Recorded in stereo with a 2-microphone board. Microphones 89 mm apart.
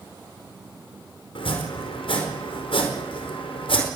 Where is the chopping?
80° left, 4.5 m.